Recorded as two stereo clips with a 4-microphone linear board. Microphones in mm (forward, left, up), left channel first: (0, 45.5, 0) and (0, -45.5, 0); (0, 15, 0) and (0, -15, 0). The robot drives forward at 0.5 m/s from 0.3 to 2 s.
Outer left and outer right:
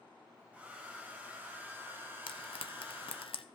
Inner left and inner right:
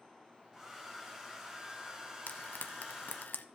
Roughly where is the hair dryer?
Centre.